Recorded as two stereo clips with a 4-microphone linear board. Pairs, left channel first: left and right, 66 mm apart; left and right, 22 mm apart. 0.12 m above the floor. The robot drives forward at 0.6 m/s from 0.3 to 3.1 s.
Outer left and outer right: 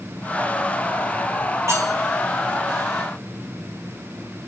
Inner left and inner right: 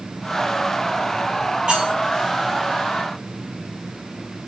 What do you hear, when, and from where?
1.7 s cutlery clinking: 50° right (ahead or behind), 6.5 m